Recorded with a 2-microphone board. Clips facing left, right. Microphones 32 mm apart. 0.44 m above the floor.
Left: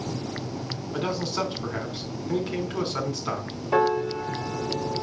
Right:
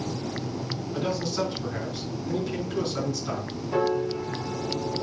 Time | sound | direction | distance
0.9 | a man speaking | 40° left (ahead or behind) | 4 m
3.7 | a piano | 40° left (ahead or behind) | 2.5 m